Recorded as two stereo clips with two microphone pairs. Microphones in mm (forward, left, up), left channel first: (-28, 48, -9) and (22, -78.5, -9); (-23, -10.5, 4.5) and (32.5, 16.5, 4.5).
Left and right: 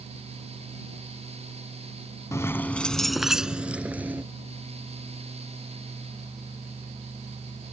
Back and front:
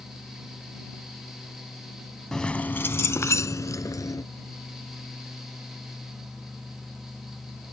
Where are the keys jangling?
135° left; by 4.2 s 145° right.